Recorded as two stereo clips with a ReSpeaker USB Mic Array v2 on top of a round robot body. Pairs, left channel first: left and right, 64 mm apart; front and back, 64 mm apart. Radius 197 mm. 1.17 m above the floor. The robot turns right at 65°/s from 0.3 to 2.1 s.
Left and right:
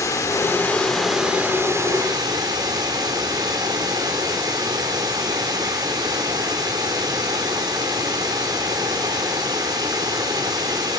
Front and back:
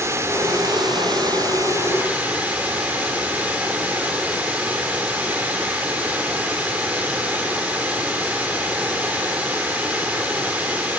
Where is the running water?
130° left, 0.9 m; by 11.0 s 115° right, 0.9 m.